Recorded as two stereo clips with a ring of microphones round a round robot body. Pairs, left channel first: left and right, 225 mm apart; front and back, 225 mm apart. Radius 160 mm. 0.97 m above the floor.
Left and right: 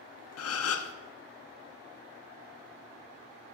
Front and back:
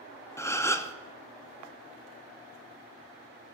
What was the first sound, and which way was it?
A gasp, 80° left.